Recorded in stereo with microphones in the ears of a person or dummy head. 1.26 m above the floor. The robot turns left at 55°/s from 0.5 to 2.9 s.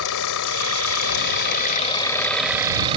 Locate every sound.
0.0 s an engine running: 110° left; by 3.0 s 25° right